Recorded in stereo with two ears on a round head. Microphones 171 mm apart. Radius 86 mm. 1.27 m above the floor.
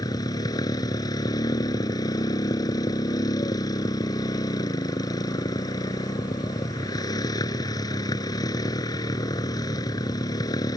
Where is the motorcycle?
20° left (ahead or behind).